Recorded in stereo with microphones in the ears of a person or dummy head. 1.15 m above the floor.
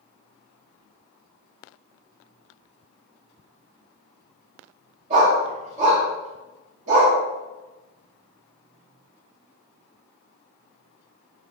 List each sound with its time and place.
5.1 s a dog barking: 45° right (ahead or behind), 0.8 m